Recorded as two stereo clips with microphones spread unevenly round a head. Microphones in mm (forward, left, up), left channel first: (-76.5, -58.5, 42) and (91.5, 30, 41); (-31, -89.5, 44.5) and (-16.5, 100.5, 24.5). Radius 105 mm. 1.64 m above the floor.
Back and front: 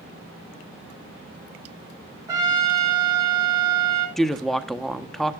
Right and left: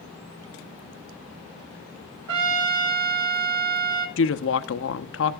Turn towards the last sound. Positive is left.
turn(degrees=-65)